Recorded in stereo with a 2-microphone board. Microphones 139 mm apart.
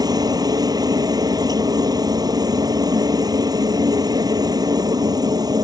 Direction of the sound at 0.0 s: 25° right (ahead or behind).